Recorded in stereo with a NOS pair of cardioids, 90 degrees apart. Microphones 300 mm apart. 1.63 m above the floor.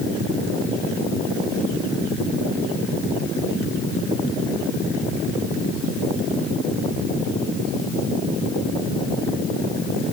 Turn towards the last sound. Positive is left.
No sound to turn to.